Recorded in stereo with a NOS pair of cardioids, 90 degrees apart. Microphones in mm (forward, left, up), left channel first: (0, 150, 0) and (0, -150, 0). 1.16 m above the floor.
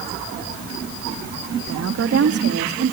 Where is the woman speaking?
55° right, 2.5 m; by 2.9 s 45° right, 3 m.